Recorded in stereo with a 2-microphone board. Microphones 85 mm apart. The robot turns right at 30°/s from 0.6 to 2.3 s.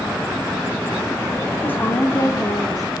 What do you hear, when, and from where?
1.6 s a woman speaking: 20° left (ahead or behind), 1.9 m; by 2.9 s 40° left (ahead or behind), 1.9 m